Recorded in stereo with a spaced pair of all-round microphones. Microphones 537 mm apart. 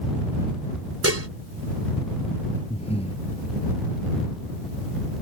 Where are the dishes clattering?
25° right (ahead or behind).